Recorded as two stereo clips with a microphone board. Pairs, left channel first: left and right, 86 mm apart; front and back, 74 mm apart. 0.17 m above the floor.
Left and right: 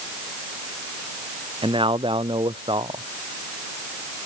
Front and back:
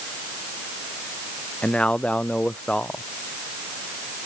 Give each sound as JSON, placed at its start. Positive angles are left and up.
{"t": 1.6, "sound": "a man speaking", "azimuth_deg": -75}